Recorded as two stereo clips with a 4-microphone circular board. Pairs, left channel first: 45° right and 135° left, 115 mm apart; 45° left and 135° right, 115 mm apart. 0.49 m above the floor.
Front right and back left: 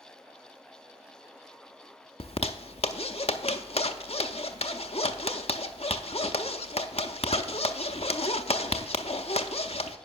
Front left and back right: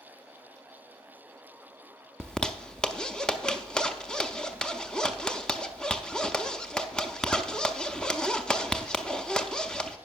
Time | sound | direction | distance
2.2 | a zipper | 40° right | 0.6 m